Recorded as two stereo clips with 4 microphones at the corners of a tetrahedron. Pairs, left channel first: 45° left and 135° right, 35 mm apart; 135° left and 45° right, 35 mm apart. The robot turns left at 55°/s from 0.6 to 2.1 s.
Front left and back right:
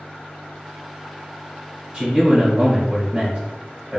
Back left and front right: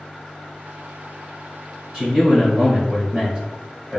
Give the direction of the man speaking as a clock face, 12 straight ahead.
3 o'clock.